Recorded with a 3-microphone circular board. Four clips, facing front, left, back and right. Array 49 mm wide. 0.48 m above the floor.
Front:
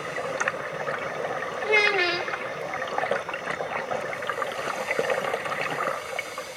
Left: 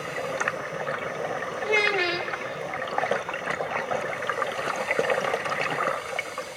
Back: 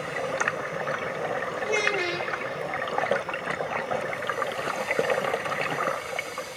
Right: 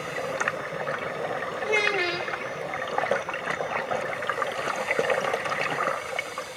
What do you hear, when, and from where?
1.6 s a child speaking: 10° left, 0.6 m